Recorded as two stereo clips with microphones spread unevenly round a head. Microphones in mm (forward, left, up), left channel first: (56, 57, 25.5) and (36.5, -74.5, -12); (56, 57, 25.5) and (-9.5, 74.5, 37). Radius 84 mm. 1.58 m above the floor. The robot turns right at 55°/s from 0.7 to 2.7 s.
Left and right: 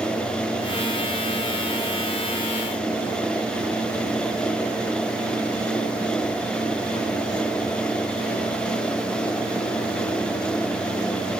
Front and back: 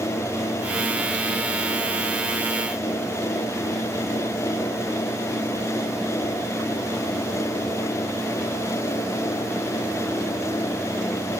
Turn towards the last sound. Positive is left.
No sound to turn to.